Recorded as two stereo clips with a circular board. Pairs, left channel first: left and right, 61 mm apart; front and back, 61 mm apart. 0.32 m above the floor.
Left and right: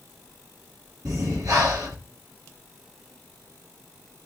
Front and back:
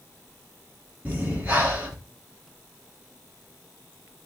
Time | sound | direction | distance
1.1 | breathing | 115° right | 3 m